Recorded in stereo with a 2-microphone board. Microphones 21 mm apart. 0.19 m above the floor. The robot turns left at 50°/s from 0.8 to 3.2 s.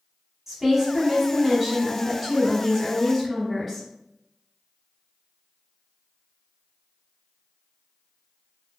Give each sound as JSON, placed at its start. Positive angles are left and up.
{"t": 0.5, "sound": "a woman speaking", "side_deg": -15, "distance_m": 1.0}